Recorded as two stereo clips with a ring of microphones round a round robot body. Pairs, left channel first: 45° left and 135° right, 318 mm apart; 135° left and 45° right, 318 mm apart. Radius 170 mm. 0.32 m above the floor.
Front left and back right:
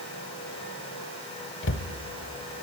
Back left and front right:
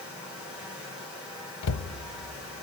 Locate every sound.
1.6 s a cupboard door: 95° left, 1.1 m